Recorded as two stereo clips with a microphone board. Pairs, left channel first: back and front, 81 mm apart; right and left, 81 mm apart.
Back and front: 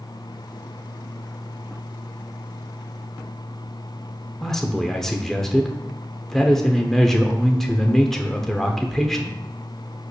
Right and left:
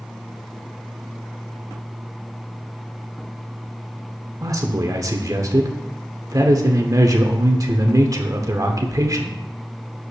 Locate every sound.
4.4 s a man speaking: 95° left, 1.0 m